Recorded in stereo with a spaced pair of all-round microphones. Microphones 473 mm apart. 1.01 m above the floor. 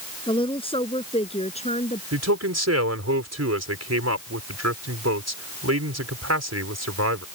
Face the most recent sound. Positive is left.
turn(degrees=-35)  # may be behind; listen again after turning